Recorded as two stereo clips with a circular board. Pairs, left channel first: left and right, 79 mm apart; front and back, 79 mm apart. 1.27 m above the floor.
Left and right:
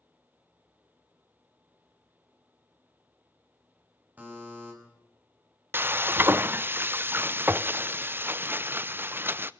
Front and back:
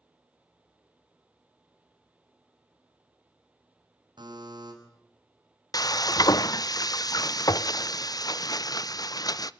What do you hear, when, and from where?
4.2 s a buzzer: 160° right, 6 m
5.7 s frying: 30° right, 0.6 m